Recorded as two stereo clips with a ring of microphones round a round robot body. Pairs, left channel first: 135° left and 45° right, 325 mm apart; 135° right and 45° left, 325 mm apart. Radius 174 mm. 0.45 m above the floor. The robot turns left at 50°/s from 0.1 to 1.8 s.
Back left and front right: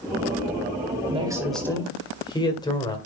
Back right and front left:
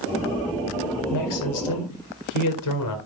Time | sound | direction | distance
1.1 | a man speaking | 115° right | 1.9 m